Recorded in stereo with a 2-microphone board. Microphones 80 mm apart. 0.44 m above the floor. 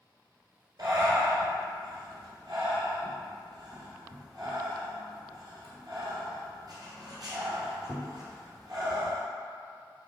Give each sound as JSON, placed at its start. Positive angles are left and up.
{"t": 0.8, "sound": "breathing", "side_deg": -55, "distance_m": 1.5}